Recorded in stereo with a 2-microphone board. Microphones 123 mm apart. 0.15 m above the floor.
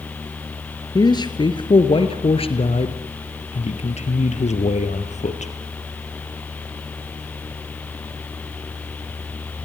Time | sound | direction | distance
0.9 | a man speaking | 35° left (ahead or behind) | 3 m